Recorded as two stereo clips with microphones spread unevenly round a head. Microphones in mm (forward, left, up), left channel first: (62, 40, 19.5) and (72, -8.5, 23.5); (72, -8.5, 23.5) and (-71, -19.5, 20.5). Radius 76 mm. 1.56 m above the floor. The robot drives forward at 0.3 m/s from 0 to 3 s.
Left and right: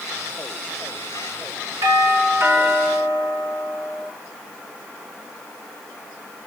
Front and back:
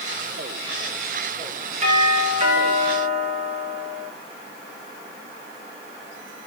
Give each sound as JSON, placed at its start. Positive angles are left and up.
{"t": 1.8, "sound": "a doorbell", "azimuth_deg": -130, "distance_m": 7.5}